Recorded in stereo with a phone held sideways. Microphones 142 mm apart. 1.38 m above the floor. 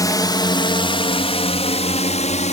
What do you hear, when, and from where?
0.0 s a drone: 25° left (ahead or behind); by 2.5 s 55° left (ahead or behind)